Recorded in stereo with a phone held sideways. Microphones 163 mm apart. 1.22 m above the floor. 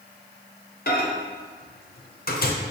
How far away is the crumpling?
I don't hear crumpling.